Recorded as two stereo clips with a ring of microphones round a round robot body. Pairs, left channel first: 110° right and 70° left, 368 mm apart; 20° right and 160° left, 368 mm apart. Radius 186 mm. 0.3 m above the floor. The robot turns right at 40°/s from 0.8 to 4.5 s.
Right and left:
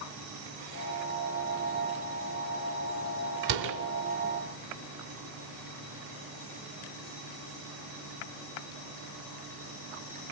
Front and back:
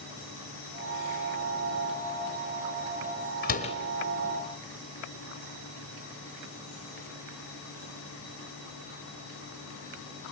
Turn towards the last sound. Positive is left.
turn(degrees=85)